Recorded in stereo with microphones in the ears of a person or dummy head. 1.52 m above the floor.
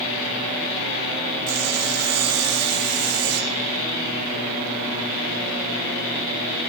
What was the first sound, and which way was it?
Sawing, 85° right.